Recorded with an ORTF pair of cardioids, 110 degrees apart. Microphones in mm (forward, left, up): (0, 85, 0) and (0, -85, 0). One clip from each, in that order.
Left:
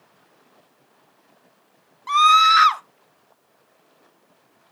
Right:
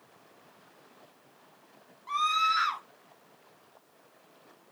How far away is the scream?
About 0.9 m.